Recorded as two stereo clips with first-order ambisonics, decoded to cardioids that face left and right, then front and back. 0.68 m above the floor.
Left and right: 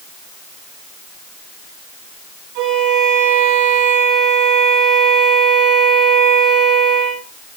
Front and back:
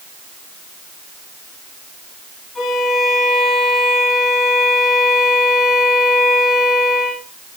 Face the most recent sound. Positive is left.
turn(degrees=-75)